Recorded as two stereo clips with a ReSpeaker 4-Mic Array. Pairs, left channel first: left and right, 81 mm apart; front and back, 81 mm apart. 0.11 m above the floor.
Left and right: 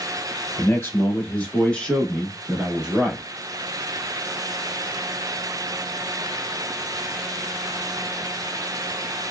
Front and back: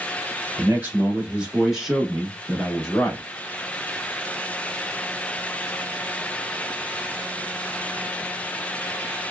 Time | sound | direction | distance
0.6 | a man speaking | 130° left | 1.5 m